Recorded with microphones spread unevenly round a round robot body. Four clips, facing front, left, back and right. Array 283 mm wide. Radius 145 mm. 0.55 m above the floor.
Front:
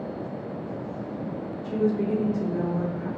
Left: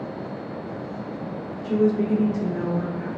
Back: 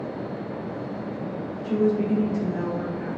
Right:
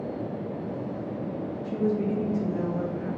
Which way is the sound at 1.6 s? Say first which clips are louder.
Left 6 dB, back 3 dB; 125° left.